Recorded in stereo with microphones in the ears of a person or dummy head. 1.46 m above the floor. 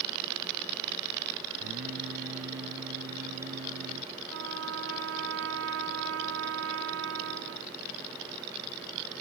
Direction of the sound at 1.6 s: 55° right (ahead or behind).